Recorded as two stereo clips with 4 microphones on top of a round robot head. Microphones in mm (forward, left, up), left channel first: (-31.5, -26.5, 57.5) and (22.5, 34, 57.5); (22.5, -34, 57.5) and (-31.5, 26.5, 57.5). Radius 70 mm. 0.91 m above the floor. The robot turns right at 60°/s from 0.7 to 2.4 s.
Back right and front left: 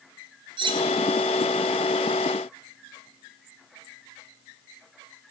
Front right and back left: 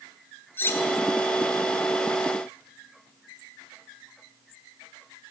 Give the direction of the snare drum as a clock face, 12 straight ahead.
I don't hear a snare drum.